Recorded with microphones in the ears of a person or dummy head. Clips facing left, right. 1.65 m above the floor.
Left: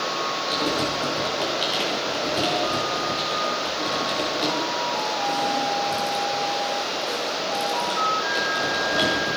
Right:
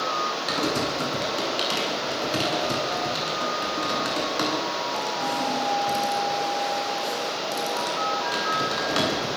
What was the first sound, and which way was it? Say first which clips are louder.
Typing on a keyboard: even; 70° right (ahead or behind).